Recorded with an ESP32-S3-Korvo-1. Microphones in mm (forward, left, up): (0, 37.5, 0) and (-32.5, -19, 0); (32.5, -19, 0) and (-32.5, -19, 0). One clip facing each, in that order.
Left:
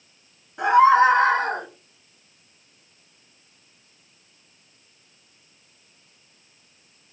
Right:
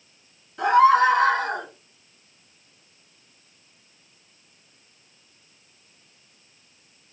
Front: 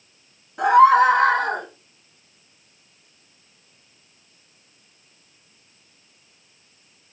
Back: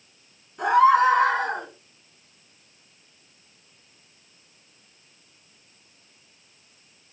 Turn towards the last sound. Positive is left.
turn(degrees=15)